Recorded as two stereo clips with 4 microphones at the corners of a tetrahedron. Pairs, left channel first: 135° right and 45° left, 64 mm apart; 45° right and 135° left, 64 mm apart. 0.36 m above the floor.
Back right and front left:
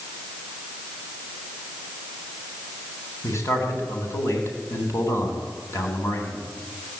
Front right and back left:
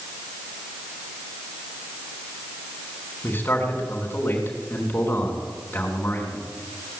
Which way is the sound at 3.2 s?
100° right.